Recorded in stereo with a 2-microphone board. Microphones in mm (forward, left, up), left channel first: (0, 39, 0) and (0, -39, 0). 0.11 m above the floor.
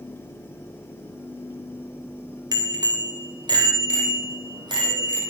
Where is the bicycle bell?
50° right (ahead or behind), 2 m; by 5.2 s 65° right (ahead or behind), 4 m.